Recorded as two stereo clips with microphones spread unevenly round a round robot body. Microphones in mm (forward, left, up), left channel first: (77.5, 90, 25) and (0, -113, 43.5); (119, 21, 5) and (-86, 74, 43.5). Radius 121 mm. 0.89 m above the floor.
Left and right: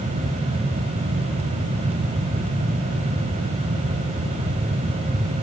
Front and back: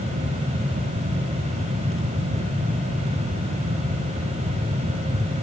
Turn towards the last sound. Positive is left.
No sound to turn to.